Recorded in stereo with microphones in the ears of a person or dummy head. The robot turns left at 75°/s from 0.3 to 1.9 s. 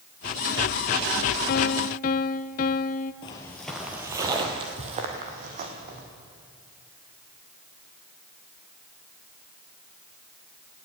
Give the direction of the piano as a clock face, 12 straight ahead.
9 o'clock.